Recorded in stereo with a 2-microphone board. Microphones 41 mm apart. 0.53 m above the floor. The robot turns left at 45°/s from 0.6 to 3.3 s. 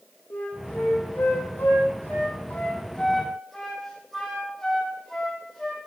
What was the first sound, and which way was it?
A flute, 55° left (ahead or behind).